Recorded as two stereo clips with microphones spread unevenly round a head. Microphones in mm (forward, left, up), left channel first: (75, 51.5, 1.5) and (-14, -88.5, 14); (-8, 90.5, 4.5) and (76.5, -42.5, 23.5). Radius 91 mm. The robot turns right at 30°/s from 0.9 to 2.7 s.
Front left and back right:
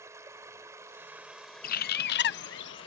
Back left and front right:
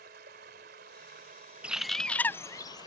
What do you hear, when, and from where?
0.0 s running water: 55° right; by 2.9 s straight ahead
1.6 s a bird: 25° left; by 2.9 s 55° left